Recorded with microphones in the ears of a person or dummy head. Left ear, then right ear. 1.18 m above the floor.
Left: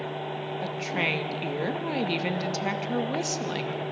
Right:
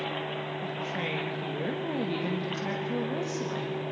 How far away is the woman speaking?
About 2 m.